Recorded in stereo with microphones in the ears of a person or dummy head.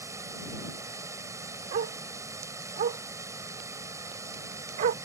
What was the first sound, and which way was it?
Running water, 20° right (ahead or behind).